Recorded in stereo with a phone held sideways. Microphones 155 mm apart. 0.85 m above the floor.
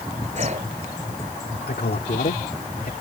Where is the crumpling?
No crumpling in this recording.